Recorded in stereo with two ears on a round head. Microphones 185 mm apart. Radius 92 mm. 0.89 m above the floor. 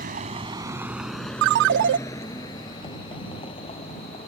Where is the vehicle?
45° right (ahead or behind); by 4.3 s 30° left (ahead or behind).